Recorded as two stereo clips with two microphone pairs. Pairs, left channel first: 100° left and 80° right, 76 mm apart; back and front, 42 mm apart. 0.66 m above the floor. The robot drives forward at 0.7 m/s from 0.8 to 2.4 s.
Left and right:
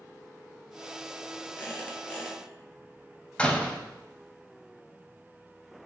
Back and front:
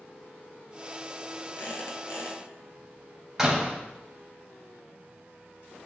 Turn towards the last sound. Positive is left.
turn(degrees=60)